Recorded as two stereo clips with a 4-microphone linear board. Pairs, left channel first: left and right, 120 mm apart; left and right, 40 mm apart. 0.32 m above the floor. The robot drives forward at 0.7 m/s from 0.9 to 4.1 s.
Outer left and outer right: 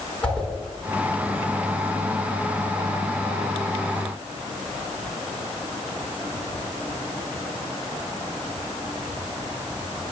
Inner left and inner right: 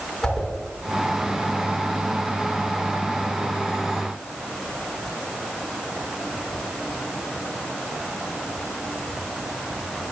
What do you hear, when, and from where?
0.2 s a whoosh: 10° left (ahead or behind), 4 m